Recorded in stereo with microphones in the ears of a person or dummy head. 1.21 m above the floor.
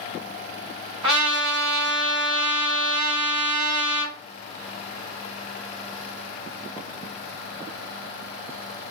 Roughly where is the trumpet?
Right.